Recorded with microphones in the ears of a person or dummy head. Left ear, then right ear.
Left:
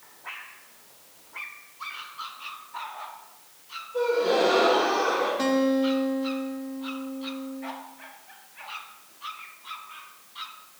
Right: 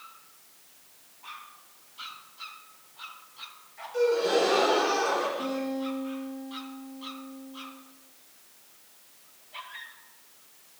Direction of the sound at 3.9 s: 70° right (ahead or behind).